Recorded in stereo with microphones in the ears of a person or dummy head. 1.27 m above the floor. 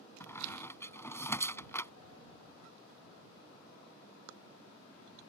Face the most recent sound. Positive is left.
turn(degrees=15)  # may be behind; listen again after turning